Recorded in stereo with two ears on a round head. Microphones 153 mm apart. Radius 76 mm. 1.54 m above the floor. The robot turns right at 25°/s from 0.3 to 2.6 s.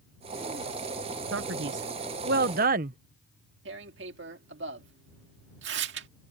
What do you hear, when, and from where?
1.3 s a man speaking: 85° right; by 3.0 s 55° right
3.6 s tearing paper: 75° right (ahead or behind)